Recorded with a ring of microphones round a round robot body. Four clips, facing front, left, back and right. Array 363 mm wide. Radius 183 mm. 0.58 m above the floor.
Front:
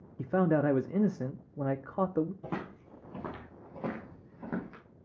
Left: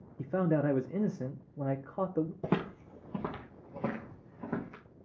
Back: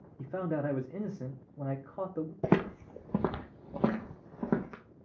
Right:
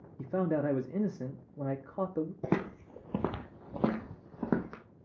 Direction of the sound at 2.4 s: 175° right.